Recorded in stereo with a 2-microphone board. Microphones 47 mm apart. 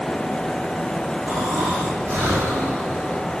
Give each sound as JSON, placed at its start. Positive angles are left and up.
{"t": 1.3, "sound": "snoring", "side_deg": -60, "distance_m": 4.5}